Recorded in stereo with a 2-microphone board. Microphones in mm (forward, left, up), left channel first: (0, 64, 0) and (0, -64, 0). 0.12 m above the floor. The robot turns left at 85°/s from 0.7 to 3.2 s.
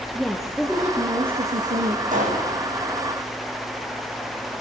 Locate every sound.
0.1 s a woman speaking: straight ahead, 2.5 m; by 2.0 s 105° right, 2.5 m
2.1 s a pop: 90° right, 7 m; by 2.5 s 125° right, 7 m